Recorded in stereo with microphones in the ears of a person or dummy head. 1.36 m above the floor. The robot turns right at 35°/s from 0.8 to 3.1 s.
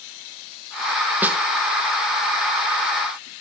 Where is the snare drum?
10° right (ahead or behind), 1.4 m; by 1.4 s 5° right (ahead or behind), 1.4 m.